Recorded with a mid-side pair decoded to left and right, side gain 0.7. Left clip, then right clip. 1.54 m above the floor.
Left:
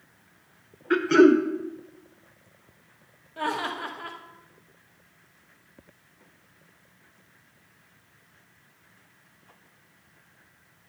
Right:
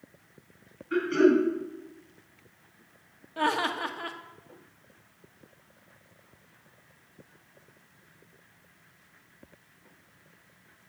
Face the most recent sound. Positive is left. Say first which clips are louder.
# right 2 dB
turn(degrees=-20)